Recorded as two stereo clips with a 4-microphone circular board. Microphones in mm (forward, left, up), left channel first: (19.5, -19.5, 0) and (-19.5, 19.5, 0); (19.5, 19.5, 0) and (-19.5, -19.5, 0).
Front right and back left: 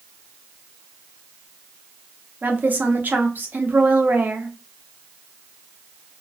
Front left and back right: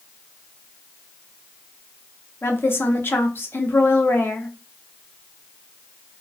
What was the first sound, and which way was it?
A woman speaking, 80° left.